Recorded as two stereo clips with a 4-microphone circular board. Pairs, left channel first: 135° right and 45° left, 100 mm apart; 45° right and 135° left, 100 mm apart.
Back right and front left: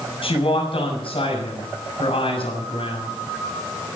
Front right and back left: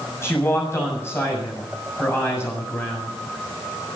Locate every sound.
0.2 s a man speaking: 110° right, 7 m